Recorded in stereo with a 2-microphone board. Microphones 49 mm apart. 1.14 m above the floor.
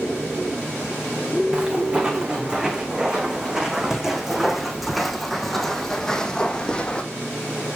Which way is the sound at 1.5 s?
20° right (ahead or behind).